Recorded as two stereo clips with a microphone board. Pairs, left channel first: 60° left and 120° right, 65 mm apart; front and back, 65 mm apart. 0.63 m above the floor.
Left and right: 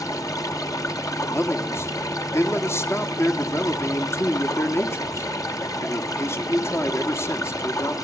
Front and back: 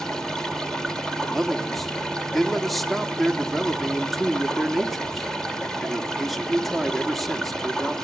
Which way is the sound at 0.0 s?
80° left.